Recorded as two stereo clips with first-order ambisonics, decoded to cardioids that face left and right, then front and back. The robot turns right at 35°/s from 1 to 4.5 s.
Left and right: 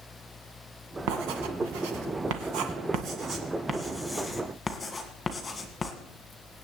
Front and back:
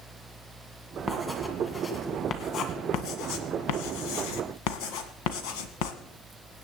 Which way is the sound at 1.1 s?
105° right.